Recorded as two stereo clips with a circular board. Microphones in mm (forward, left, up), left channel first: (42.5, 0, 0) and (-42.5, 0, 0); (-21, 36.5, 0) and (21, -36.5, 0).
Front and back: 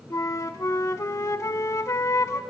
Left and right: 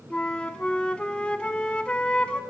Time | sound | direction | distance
0.1 | a flute | 45° left | 0.6 m